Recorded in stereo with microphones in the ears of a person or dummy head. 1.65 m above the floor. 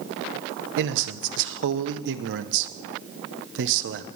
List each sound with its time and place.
0.8 s a man speaking: 70° right (ahead or behind), 0.9 m